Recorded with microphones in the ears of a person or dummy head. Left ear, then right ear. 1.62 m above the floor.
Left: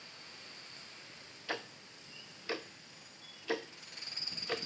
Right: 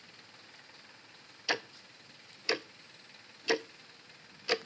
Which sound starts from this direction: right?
Ticking, at 1.5 s.